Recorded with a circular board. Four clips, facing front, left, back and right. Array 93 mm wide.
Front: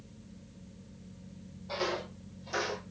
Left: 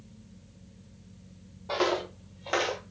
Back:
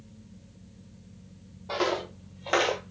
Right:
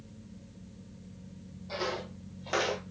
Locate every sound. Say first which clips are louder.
1.7 s footsteps: left 7 dB, back 6 dB; 120° left, 0.8 m; by 2.9 s 165° right, 0.5 m